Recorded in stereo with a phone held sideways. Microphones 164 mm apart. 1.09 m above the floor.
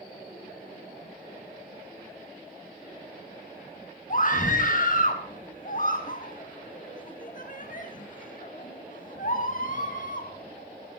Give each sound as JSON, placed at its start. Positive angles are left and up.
{"t": 4.1, "sound": "a scream", "side_deg": 55, "distance_m": 1.8}